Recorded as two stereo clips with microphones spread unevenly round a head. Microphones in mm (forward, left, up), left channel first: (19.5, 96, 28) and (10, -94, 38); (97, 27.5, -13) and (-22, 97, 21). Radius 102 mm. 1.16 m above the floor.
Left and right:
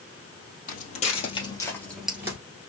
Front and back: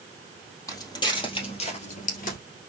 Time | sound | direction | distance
0.7 | footsteps | 40° left | 2.5 m